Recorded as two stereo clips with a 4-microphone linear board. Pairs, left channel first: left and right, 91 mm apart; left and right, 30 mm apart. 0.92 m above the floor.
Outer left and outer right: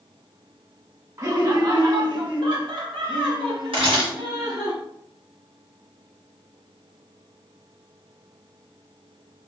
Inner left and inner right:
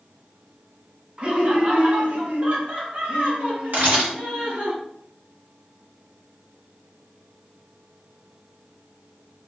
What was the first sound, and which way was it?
Laughter, 40° right (ahead or behind).